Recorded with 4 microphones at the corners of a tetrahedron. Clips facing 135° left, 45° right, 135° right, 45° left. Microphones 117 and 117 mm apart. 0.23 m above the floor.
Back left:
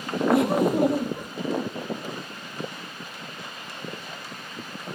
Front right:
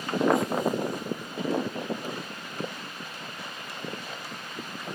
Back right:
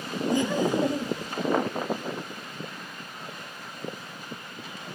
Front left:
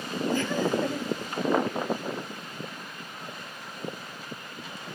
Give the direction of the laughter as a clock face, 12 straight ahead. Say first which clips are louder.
Back left 9 dB, back right 3 dB; 7 o'clock.